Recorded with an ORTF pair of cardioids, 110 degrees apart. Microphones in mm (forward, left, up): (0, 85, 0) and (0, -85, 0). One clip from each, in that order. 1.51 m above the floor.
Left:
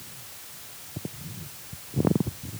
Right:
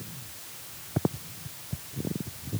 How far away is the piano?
I don't hear a piano.